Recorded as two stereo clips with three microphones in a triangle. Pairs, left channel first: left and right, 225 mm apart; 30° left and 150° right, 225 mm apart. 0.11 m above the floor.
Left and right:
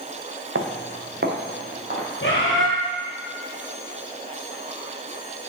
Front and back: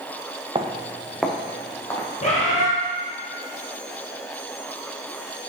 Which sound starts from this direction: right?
Footsteps, at 0.6 s.